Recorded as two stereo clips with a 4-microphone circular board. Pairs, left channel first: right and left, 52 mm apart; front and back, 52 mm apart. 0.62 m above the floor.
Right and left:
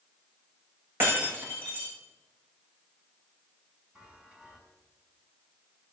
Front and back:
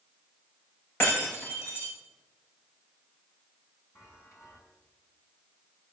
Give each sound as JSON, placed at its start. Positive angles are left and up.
{"t": 1.0, "sound": "breaking glass", "azimuth_deg": 40, "distance_m": 9.0}
{"t": 4.0, "sound": "a chime", "azimuth_deg": 15, "distance_m": 4.5}